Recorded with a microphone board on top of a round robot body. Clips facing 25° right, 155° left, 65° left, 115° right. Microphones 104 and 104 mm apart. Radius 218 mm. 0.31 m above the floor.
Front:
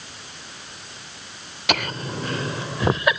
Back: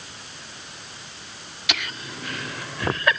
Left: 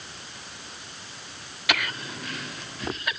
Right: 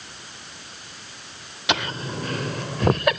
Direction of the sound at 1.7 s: 50° right.